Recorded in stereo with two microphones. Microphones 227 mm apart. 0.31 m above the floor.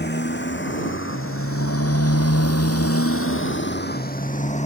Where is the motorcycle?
45° left (ahead or behind); by 4.7 s 25° left (ahead or behind).